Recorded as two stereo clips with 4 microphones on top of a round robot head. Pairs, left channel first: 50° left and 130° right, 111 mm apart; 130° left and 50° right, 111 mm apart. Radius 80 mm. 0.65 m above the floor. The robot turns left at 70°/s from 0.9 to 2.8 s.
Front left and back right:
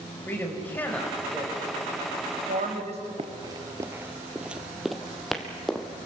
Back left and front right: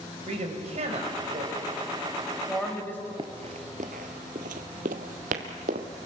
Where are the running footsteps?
95° right, 0.8 m; by 5.9 s 35° right, 1.8 m.